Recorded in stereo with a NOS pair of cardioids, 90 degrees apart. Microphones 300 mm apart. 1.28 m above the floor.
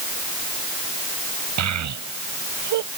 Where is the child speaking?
60° right; by 2.9 s 70° right.